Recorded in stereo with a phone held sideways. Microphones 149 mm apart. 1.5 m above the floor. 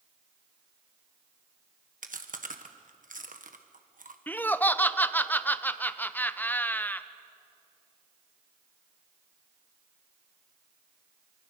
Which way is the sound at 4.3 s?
15° left (ahead or behind).